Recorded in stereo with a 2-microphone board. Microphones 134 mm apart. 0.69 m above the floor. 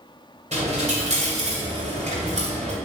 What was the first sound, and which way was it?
A dropped coin, 60° right (ahead or behind).